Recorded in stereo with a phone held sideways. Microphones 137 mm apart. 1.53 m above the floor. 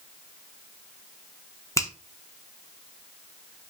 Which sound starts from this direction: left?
A finger snap, at 1.8 s.